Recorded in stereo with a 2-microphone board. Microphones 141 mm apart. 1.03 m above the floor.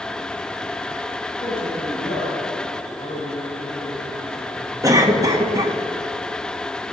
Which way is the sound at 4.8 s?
25° right (ahead or behind).